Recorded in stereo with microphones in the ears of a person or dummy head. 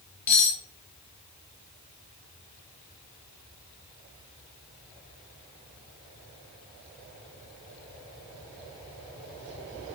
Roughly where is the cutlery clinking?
Centre.